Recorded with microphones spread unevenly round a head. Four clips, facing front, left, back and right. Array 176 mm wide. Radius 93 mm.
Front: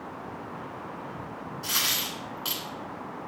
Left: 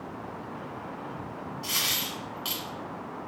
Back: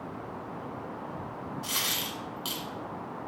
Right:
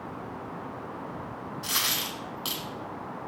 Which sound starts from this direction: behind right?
A dropped coin, at 1.6 s.